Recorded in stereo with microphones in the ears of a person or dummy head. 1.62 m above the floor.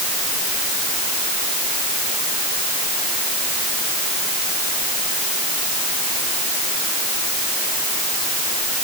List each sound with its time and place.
Only background noise.